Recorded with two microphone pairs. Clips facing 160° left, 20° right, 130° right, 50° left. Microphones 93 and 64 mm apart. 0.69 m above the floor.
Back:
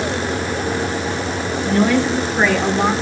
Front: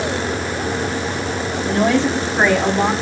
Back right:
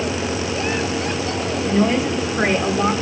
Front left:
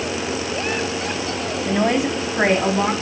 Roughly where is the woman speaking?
Ahead left.